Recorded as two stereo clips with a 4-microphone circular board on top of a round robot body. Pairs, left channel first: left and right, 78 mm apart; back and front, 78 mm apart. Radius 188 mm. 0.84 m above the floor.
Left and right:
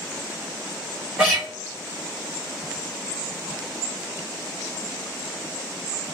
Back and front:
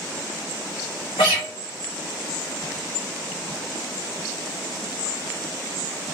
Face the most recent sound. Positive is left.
turn(degrees=-165)